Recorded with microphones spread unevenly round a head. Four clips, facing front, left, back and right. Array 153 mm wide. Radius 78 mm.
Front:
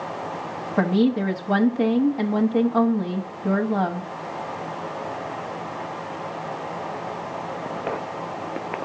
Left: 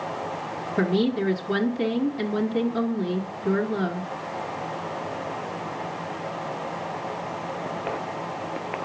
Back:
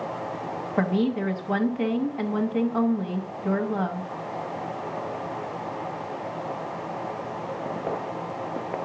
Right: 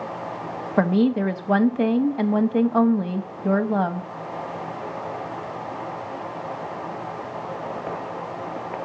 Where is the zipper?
No zipper in this recording.